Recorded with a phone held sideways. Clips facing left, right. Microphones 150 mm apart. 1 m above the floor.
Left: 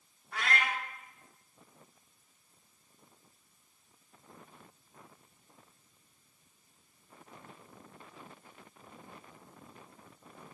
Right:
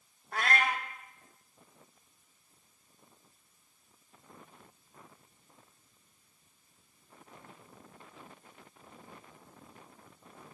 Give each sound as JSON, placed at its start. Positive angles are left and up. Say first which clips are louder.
{"t": 0.3, "sound": "a cat meowing", "louder": "right 3 dB", "side_deg": -45, "distance_m": 1.1}